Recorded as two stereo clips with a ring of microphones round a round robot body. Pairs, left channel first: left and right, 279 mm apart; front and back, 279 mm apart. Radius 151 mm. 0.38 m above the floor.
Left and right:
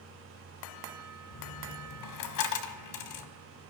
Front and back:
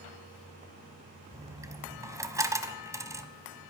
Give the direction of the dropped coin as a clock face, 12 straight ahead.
9 o'clock.